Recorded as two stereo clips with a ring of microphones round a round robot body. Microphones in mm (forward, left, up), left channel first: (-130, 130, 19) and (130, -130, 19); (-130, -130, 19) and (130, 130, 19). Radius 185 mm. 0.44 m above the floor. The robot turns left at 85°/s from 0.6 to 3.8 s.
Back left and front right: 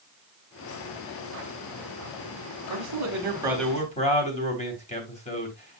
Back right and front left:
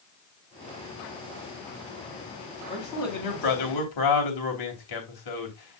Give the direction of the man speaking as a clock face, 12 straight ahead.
2 o'clock.